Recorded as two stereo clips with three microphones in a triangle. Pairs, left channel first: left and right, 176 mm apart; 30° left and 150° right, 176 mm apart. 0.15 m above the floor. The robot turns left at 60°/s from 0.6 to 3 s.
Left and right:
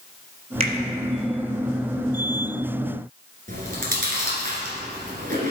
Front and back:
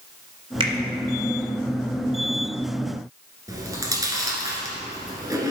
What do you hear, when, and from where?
0.6 s a finger snap: 105° right, 1.7 m; by 0.7 s 115° right, 1.7 m
3.5 s chewing: 85° right, 1.8 m